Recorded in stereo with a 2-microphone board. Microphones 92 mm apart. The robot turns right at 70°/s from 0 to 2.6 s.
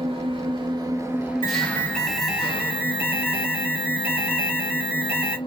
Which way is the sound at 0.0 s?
105° right.